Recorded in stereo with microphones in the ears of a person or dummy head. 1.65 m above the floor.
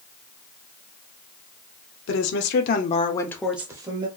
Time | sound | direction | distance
2.1 | a woman speaking | 80° left | 1.1 m